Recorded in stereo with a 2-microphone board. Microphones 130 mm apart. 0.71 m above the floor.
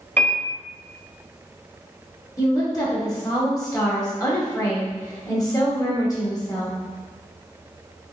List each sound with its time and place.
0.2 s a piano: 15° left (ahead or behind), 0.8 m
2.4 s a woman speaking: 30° left (ahead or behind), 1.2 m